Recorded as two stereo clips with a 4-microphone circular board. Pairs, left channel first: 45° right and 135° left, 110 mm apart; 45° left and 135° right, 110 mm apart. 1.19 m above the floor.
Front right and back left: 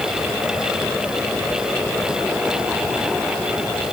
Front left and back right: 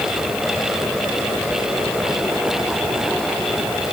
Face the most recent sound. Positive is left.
No sound to turn to.